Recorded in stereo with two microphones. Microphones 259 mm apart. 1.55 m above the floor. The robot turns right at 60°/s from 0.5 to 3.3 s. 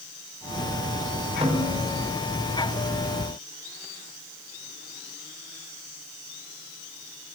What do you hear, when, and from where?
1.4 s a snare drum: 160° right, 5 m; by 2.0 s 125° right, 5 m